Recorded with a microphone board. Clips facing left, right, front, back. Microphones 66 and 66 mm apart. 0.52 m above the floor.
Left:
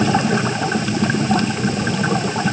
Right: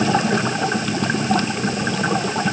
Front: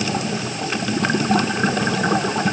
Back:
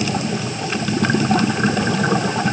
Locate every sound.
Only background noise.